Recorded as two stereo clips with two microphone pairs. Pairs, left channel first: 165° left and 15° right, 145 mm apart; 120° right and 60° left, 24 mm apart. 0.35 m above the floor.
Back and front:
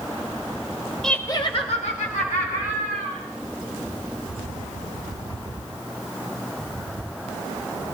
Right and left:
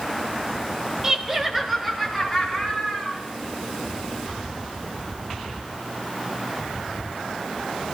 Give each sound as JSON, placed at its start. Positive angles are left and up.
{"t": 1.0, "sound": "laughter", "azimuth_deg": 80, "distance_m": 0.9}